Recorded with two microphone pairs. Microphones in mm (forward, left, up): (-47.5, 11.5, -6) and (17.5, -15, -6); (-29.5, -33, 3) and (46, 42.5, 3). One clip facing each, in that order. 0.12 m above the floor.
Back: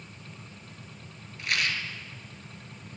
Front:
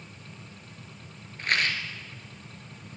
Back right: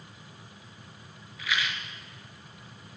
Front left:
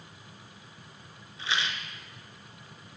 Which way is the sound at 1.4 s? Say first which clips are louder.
Front 3 dB, even; straight ahead.